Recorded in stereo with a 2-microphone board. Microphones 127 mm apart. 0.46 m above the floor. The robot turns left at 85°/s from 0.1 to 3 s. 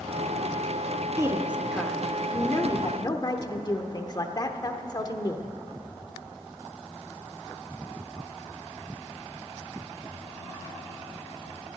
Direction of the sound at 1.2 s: 130° right.